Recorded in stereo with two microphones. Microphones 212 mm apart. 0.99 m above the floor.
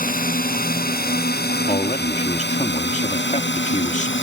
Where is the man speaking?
35° left (ahead or behind).